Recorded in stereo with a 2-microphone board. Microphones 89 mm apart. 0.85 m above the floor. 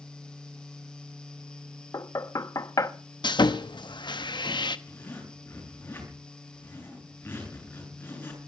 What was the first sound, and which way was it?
Knocking, 40° left (ahead or behind).